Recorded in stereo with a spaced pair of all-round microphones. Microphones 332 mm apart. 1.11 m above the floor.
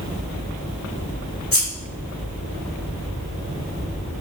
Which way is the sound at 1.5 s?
80° left.